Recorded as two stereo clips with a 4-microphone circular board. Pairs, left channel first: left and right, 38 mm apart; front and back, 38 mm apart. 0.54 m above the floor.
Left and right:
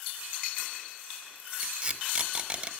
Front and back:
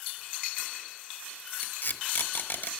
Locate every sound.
1.6 s tape being pulled: 25° right, 1.1 m